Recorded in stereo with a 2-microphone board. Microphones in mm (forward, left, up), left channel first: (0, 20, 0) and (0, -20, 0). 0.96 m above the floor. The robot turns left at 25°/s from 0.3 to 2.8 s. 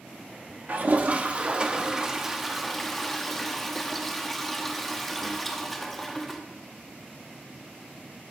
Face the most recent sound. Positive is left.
turn(degrees=175)